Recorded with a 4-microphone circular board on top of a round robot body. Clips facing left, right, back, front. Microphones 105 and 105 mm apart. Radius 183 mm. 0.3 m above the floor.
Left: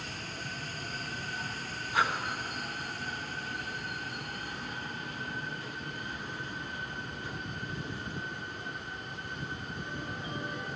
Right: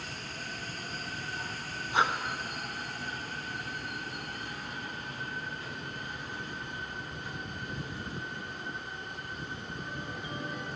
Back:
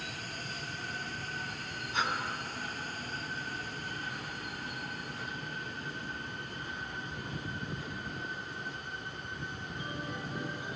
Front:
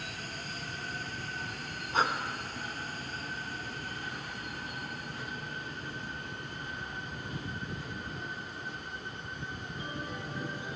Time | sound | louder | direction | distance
1.9 | breathing | right 2 dB, front 4 dB | 30° right | 1.5 m